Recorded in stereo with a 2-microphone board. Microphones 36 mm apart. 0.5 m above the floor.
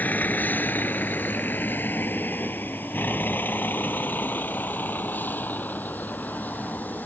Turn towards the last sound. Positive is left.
turn(degrees=60)  # may be behind; listen again after turning